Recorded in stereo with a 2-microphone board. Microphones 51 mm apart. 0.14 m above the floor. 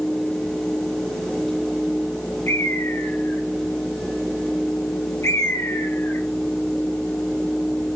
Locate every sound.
2.5 s a bird: 65° left (ahead or behind), 1.9 m